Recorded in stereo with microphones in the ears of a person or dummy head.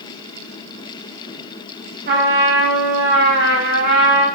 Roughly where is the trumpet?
Right.